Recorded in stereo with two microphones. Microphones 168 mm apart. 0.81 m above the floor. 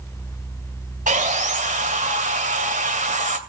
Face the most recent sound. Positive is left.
turn(degrees=-50)  # may be behind; listen again after turning